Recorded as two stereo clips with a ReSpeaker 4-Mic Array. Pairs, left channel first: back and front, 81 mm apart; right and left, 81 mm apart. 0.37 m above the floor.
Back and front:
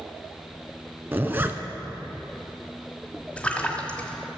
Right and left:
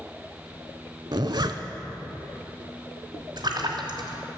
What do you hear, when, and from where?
1.1 s a zipper: 65° left, 0.8 m
3.4 s a splash: 105° left, 1.5 m